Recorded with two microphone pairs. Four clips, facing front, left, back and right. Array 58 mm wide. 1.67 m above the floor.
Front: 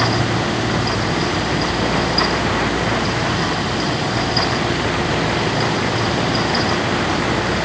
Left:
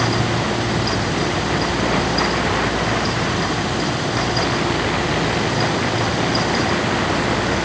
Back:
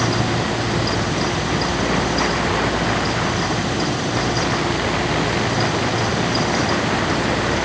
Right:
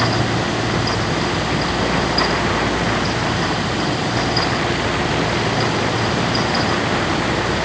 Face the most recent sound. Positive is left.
No sound to turn to.